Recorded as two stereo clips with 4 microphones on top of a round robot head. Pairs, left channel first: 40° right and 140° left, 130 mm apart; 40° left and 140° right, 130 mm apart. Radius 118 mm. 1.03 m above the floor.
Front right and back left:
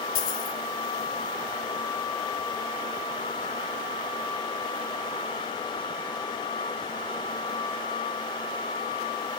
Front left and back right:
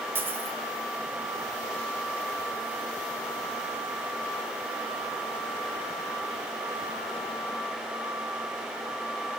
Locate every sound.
0.1 s a dropped coin: 65° right, 3 m